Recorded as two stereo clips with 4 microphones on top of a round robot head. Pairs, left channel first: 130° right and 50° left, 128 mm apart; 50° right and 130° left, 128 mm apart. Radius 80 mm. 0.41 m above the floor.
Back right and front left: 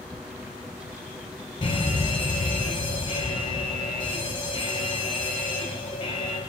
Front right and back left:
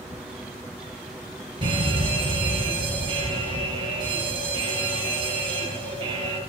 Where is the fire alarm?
Straight behind, 7 m.